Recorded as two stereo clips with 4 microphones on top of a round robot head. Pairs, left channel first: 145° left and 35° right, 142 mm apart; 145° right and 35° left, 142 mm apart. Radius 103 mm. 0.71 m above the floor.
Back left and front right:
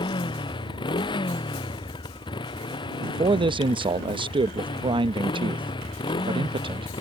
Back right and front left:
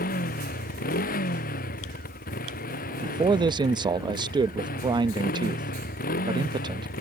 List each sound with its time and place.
0.0 s a motorcycle: 160° right
3.0 s a man speaking: 5° right